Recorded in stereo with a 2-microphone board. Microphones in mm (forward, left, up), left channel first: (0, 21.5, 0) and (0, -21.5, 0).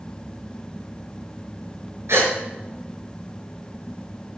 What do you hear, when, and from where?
2.1 s a gasp: 80° right, 5.5 m